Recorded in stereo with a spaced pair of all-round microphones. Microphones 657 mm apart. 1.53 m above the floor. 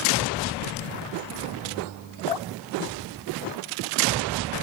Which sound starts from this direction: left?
Dripping, at 2.3 s.